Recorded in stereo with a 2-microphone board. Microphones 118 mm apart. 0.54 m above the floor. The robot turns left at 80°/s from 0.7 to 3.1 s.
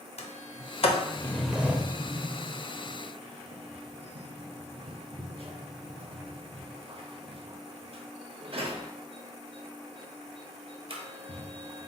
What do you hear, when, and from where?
0.2 s a sliding door: 65° left (ahead or behind), 0.6 m; by 11.9 s 55° right (ahead or behind), 0.6 m